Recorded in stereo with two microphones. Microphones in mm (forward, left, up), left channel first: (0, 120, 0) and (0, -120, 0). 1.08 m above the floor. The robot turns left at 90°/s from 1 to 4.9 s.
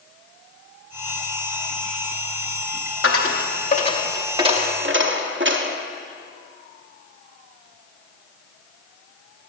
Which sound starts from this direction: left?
A dropped coin, at 3.0 s.